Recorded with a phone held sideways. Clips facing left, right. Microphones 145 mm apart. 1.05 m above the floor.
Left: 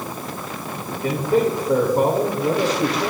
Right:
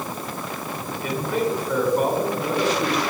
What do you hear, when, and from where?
1.0 s a man speaking: 35° left (ahead or behind), 1.9 m